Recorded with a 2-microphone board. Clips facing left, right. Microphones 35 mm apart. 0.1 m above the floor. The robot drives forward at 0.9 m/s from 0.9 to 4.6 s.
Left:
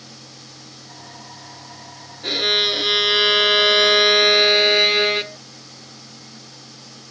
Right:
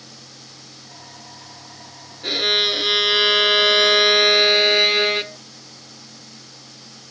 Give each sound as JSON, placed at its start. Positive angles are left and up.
{"t": 2.2, "sound": "a violin", "side_deg": 0}